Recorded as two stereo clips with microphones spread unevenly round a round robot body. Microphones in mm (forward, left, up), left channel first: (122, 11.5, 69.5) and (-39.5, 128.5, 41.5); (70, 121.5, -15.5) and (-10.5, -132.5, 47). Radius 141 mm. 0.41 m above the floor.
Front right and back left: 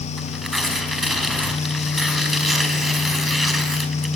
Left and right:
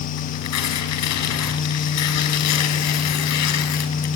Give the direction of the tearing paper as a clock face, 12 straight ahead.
10 o'clock.